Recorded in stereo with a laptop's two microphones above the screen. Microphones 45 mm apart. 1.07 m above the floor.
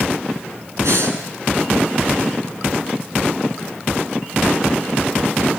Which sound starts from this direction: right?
Breathing, at 0.8 s.